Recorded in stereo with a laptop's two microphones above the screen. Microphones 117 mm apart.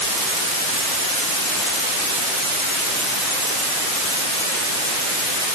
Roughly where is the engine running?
I don't hear an engine running.